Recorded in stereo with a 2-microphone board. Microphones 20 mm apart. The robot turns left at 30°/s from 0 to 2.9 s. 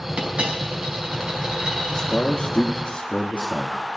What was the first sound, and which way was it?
A dropped coin, 95° right.